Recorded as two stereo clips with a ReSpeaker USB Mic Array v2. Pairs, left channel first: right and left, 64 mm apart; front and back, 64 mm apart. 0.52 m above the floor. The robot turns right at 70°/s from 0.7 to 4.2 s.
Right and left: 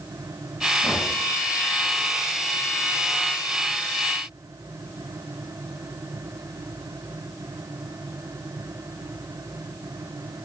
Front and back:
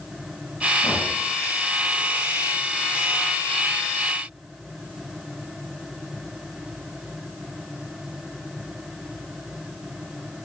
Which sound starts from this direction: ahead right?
Knocking, at 0.8 s.